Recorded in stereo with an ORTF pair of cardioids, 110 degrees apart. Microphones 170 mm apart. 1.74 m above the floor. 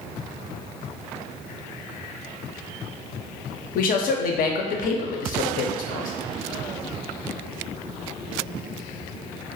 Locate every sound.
3.8 s a man speaking: 60° left, 0.5 m